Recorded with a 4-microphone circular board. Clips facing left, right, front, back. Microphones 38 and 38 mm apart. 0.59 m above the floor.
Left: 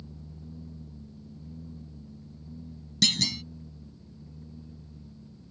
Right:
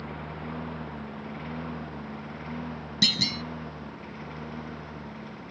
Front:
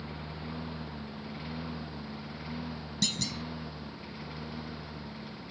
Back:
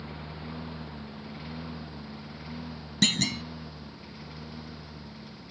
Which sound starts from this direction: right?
A lawn mower, at 0.0 s.